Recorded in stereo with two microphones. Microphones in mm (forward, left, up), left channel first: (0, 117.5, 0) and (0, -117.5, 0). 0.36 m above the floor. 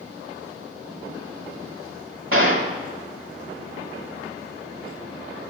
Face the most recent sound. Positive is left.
turn(degrees=-60)  # may be behind; listen again after turning